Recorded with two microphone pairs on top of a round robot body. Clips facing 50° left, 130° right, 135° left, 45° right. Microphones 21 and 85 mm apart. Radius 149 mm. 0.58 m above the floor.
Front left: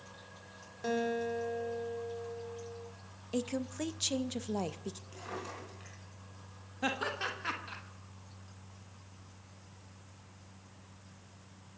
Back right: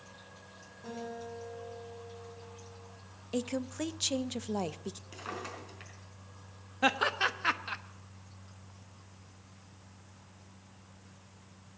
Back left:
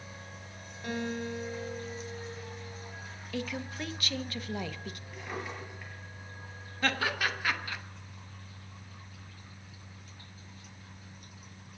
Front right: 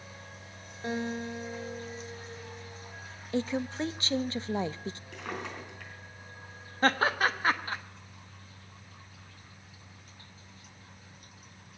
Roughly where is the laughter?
Right.